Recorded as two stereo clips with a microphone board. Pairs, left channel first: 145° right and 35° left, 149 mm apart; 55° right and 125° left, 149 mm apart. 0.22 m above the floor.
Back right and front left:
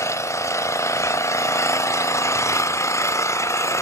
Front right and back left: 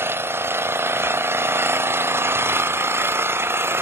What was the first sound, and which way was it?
An engine running, 175° left.